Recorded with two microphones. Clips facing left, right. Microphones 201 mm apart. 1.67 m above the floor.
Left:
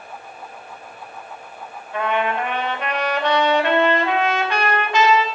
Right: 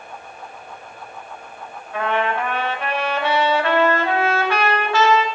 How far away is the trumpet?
About 3.5 m.